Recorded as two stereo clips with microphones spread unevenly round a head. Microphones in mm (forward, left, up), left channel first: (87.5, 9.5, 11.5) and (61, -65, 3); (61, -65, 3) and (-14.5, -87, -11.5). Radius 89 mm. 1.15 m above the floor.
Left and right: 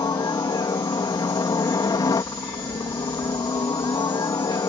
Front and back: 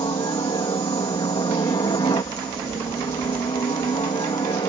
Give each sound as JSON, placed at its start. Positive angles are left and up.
{"t": 0.0, "sound": "a helicopter", "azimuth_deg": 45}